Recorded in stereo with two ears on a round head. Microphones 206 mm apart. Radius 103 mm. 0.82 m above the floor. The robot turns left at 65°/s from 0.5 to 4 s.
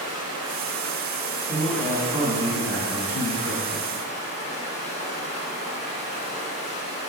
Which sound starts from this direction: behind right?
A man speaking, at 1.5 s.